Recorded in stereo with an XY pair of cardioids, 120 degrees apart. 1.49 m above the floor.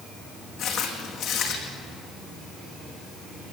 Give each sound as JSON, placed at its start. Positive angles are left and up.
{"t": 0.6, "sound": "footsteps", "azimuth_deg": 70, "distance_m": 5.5}